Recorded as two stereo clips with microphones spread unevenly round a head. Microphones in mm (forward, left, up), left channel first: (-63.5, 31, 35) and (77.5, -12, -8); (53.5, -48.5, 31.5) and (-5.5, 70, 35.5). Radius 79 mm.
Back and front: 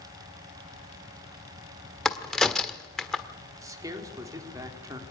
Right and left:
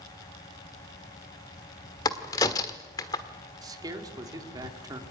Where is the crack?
125° right, 1.3 m.